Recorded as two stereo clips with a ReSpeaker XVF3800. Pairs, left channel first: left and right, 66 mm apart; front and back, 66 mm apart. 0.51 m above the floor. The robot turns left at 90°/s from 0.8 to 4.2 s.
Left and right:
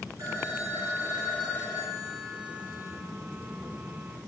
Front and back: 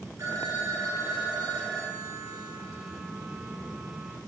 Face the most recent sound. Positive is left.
turn(degrees=-80)